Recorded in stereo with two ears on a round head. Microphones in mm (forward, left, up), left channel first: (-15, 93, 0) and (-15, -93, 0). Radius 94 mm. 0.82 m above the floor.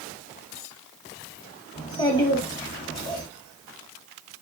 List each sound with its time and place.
1.8 s a child speaking: 25° left (ahead or behind), 1.1 m